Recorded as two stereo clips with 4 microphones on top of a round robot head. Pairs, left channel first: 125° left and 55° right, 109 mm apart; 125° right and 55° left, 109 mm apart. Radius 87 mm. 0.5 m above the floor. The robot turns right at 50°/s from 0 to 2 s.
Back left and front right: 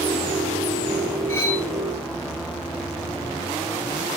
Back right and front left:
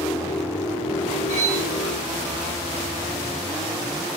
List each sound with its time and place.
1.3 s cutlery clinking: 60° left, 3.5 m; by 1.6 s 75° left, 3.5 m